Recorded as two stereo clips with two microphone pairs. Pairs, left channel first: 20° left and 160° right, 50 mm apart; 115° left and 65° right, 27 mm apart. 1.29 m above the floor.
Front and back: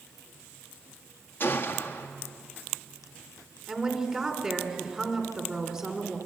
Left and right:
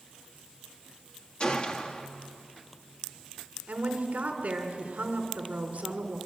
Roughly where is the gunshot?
Ahead left.